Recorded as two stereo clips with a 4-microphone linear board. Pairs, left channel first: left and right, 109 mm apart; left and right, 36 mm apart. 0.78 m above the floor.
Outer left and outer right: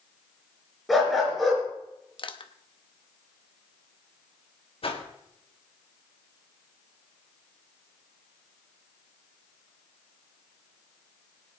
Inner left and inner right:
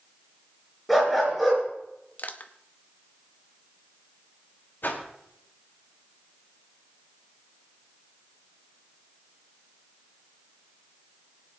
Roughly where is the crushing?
Left.